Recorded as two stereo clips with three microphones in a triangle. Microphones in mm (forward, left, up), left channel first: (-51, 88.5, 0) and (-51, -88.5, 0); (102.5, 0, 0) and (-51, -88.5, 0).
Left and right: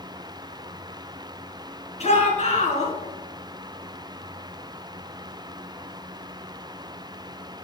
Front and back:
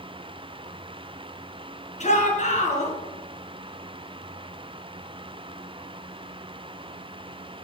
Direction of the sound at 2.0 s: 55° left.